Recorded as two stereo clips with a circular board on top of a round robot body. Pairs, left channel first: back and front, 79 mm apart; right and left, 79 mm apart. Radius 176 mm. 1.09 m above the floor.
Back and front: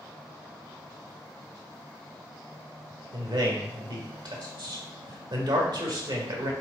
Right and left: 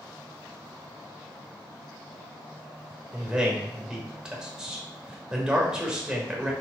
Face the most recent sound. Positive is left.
turn(degrees=10)